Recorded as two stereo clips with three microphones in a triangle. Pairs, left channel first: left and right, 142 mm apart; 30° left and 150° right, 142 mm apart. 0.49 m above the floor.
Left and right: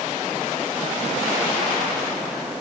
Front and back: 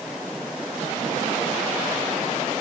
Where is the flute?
I don't hear a flute.